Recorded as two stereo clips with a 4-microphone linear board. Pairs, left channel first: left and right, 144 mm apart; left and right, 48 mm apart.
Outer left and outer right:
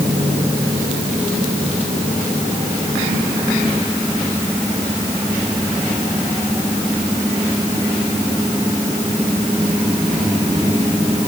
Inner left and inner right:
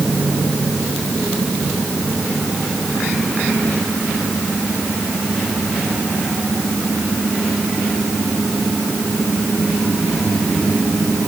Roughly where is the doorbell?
No doorbell in this recording.